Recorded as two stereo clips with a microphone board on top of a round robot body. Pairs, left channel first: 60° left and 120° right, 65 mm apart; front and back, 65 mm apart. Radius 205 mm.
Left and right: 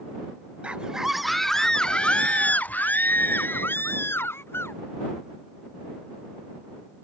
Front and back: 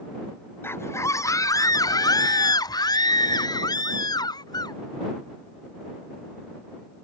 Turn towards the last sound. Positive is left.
turn(degrees=5)